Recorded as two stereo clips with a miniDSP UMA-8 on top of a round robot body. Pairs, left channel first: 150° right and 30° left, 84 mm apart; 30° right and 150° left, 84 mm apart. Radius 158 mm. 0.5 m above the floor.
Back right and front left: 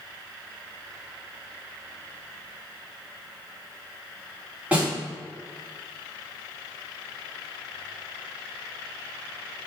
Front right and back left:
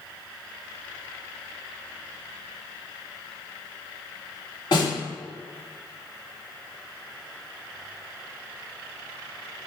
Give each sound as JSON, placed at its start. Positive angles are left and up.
{"t": 4.7, "sound": "a snare drum", "azimuth_deg": -40, "distance_m": 2.0}